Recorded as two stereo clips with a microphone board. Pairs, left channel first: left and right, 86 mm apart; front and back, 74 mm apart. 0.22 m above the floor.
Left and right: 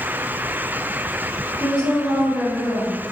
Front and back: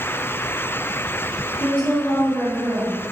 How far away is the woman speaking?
About 1.0 m.